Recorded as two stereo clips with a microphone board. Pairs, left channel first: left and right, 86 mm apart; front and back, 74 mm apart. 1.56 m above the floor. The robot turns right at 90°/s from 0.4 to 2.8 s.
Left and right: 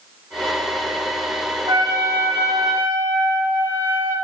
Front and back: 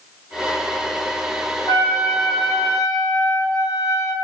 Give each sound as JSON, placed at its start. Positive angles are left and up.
{"t": 1.7, "sound": "a trumpet", "azimuth_deg": -80, "distance_m": 8.0}